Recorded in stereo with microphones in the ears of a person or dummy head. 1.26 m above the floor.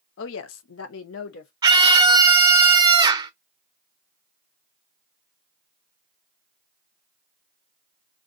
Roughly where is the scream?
Right.